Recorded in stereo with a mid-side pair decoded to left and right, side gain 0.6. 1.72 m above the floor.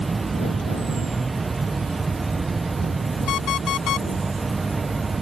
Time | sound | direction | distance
0.0 | an insect | 15° right | ?
3.3 | an alarm clock | 60° left | ?